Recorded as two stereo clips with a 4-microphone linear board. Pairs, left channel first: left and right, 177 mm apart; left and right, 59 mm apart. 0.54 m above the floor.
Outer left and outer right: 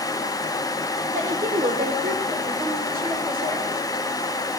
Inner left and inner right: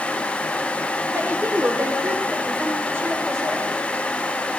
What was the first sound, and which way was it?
A woman speaking, 45° right (ahead or behind).